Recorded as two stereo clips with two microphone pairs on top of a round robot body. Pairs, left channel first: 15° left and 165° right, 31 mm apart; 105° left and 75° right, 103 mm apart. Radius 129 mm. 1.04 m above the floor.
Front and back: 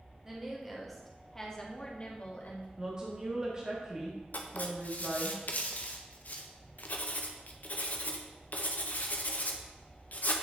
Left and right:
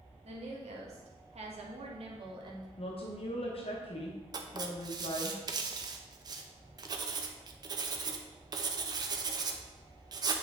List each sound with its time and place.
0.2 s a woman speaking: 90° right, 1.7 m; by 2.7 s 25° right, 1.4 m
2.8 s a woman speaking: 130° left, 0.9 m
4.3 s writing: 20° right, 0.6 m